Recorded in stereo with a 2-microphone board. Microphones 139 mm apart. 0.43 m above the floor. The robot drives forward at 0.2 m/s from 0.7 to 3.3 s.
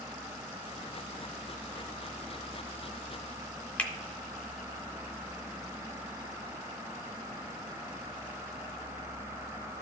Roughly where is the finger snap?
Centre.